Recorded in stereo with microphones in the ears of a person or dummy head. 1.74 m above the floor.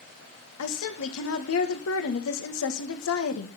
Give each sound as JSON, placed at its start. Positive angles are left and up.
{"t": 0.6, "sound": "a woman speaking", "side_deg": 80, "distance_m": 1.8}